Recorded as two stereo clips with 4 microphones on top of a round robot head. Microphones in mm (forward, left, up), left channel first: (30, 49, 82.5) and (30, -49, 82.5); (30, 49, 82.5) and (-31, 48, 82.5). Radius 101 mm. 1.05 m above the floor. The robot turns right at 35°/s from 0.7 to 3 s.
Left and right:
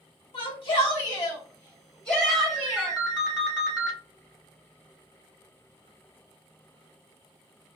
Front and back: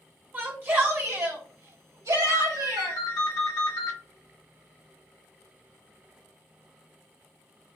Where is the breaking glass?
I don't hear breaking glass.